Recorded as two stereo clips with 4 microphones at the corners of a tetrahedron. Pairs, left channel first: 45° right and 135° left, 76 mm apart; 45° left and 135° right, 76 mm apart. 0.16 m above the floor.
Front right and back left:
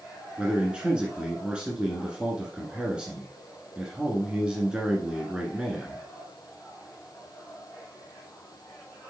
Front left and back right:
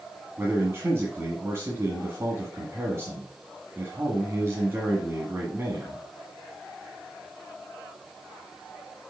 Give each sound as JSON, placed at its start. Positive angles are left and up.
{"t": 0.4, "sound": "a man speaking", "azimuth_deg": -155, "distance_m": 1.4}